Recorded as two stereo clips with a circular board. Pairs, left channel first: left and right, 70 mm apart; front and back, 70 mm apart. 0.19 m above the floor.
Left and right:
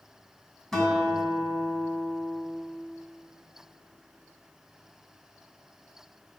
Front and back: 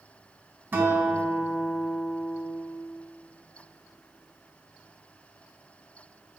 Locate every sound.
0.7 s a guitar: 165° left, 1.7 m